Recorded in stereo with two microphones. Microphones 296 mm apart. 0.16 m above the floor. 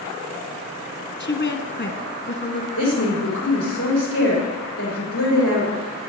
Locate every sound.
1.2 s a woman speaking: 40° left (ahead or behind), 1.3 m
2.8 s a woman speaking: 50° left (ahead or behind), 5.5 m